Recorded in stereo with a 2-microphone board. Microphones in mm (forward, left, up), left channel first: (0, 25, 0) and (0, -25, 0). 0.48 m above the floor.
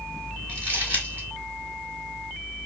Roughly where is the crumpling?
Right.